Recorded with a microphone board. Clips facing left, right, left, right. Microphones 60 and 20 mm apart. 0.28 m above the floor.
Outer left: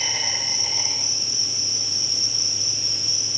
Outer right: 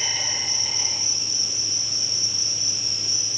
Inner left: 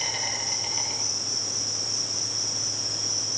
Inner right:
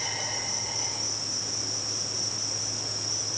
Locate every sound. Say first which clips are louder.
0.0 s an insect: outer left 1 dB, inner left 3 dB; 80° left, 4.5 m